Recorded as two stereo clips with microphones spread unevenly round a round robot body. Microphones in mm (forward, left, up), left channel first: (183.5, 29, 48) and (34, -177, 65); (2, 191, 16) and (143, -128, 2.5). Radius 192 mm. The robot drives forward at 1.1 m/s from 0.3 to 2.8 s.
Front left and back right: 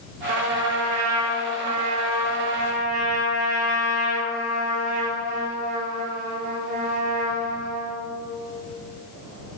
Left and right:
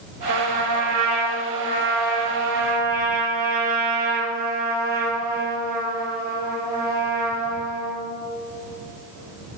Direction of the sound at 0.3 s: 105° right.